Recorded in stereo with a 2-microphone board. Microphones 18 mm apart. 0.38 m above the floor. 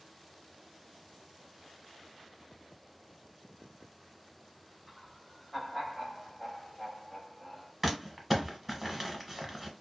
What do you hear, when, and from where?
4.9 s laughter: 15° right (ahead or behind), 1.8 m; by 7.7 s 10° right (ahead or behind), 1.4 m
7.8 s crumpling: 15° right (ahead or behind), 0.8 m